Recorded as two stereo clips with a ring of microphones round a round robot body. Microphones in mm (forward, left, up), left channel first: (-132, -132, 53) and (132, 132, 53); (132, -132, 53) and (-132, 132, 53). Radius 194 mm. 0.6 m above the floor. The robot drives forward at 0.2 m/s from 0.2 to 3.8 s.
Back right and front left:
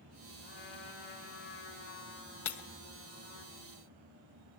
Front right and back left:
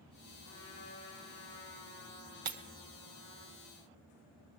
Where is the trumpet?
125° right, 6.5 m.